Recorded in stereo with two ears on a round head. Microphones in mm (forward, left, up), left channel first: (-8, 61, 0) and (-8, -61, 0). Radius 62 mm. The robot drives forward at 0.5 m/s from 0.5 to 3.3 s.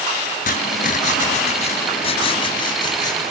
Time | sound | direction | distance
0.5 | writing | 70° left (ahead or behind) | 0.9 m